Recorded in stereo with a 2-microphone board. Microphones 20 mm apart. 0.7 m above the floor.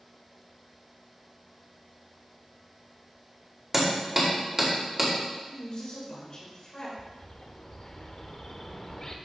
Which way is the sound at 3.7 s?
25° right (ahead or behind).